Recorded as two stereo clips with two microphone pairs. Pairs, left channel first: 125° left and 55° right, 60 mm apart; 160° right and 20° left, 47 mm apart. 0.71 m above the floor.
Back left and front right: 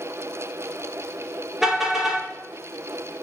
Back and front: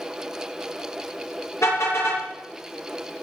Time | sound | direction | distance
1.6 | a car horn | 140° right | 6.5 m